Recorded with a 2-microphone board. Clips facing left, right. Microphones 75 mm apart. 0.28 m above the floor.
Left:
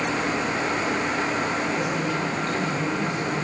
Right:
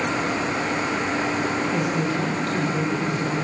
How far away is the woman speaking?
About 7.5 m.